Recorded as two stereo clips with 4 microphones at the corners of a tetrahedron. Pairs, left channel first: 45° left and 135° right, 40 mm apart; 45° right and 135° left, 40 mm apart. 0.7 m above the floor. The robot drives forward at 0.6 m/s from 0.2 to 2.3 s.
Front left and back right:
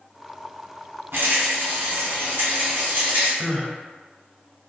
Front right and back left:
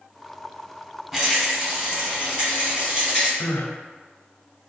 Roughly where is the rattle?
Behind right.